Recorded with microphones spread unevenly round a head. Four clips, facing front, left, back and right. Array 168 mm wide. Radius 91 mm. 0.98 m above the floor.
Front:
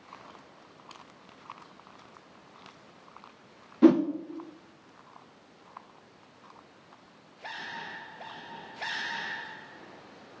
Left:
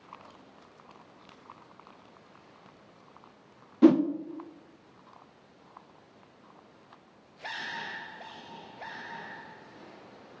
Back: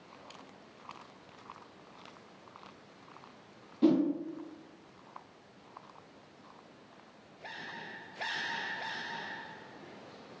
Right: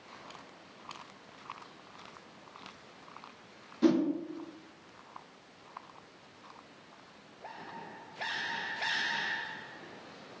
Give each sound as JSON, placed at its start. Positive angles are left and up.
{"t": 3.8, "sound": "a whoosh", "azimuth_deg": 30, "distance_m": 0.7}